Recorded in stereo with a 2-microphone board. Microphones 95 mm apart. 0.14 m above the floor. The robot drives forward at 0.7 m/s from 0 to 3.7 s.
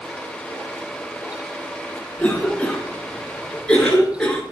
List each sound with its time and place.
2.2 s a cough: 15° left (ahead or behind), 1.5 m; by 4.4 s 10° left (ahead or behind), 2 m